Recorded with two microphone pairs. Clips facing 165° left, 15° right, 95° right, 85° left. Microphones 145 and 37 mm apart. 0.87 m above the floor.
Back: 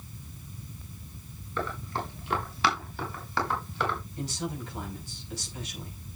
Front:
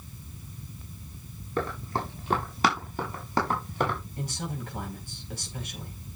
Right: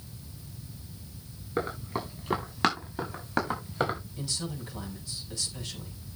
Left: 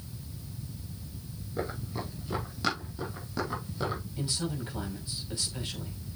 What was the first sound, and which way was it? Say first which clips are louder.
Running footsteps: front 3 dB, right 4 dB; 65° right.